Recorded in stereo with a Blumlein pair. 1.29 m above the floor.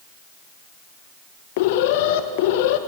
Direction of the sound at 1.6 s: 50° left.